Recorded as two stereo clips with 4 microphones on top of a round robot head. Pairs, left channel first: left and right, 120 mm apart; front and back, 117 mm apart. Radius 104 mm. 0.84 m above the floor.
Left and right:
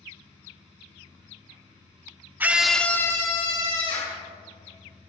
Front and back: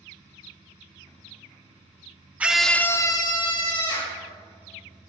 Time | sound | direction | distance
2.4 | a scream | 130° right | 0.9 m